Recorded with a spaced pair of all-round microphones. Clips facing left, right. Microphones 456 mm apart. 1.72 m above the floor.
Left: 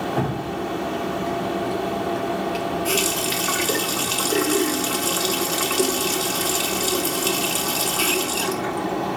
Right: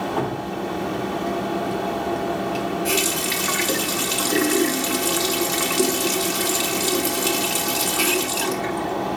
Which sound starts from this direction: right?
A running tap, at 2.9 s.